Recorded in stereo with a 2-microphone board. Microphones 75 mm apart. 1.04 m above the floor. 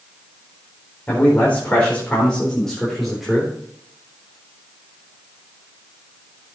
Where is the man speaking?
20° left (ahead or behind), 4 m; by 3.5 s 5° right (ahead or behind), 3 m.